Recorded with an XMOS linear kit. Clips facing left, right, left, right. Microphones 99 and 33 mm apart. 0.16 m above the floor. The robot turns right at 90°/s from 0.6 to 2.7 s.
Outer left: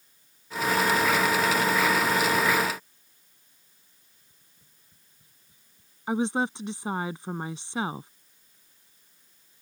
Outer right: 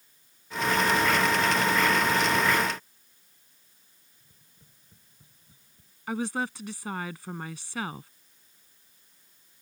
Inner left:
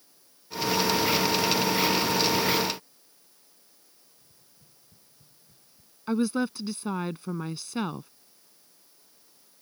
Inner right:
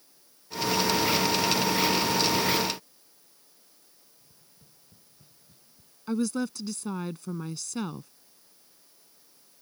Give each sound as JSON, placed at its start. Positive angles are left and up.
{"t": 4.2, "sound": "tapping", "side_deg": -25}
{"t": 6.1, "sound": "a woman speaking", "side_deg": 25}